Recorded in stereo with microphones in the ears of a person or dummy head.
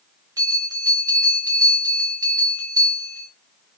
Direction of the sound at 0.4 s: 20° right (ahead or behind).